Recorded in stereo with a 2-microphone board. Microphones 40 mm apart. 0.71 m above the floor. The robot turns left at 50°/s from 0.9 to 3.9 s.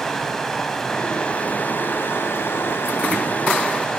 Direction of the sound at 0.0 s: 165° left.